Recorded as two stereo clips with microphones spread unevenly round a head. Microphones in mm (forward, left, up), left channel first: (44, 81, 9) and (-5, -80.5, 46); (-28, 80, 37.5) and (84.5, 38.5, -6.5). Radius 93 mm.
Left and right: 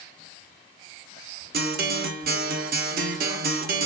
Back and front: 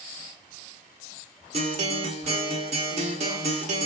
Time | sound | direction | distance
1.5 | a guitar | 85° right | 0.6 m